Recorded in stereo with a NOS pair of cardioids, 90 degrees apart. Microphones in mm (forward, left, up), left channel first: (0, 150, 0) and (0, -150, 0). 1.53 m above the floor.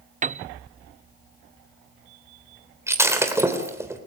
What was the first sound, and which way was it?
A piano, 25° right.